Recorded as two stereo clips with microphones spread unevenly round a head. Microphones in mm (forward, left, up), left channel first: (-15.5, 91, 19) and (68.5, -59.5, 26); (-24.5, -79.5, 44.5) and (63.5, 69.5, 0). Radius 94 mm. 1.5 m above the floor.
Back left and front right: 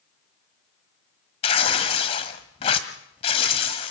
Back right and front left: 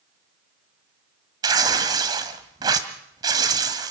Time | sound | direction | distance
1.4 | tearing paper | 140° left | 1.4 m